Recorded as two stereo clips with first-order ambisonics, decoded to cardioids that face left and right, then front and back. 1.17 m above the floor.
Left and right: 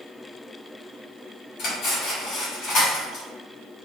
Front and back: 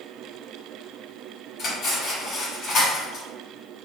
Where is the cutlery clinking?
50° left, 2.0 m.